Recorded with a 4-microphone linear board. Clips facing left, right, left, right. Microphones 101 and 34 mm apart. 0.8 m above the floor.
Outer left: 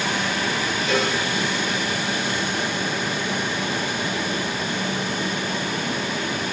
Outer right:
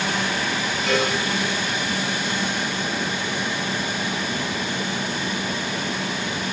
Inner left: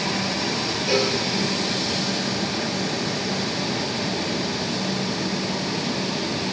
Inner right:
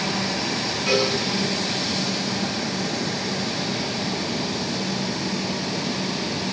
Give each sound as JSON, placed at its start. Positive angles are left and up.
{"t": 0.9, "sound": "a cowbell", "side_deg": -70, "distance_m": 7.5}